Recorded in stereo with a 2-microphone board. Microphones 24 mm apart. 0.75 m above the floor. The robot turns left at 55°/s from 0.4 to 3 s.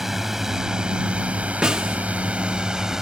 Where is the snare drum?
35° right (ahead or behind); by 2.0 s 15° right (ahead or behind).